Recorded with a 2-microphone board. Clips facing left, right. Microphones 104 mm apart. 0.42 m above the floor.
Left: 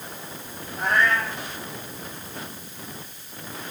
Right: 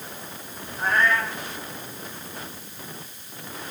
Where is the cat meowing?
75° left (ahead or behind), 9.5 m.